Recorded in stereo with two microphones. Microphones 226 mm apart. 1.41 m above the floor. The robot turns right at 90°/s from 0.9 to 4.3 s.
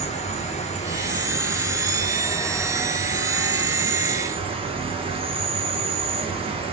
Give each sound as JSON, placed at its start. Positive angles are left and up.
{"t": 0.0, "sound": "an insect", "azimuth_deg": 30, "distance_m": 1.8}